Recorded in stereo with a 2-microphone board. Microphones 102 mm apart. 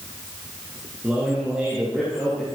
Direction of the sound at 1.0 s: 10° right (ahead or behind).